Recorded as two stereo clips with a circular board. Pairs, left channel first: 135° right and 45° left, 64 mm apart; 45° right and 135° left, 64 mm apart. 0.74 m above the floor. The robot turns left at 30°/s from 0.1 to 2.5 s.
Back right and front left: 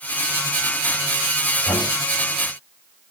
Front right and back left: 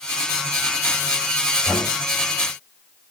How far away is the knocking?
About 3.5 m.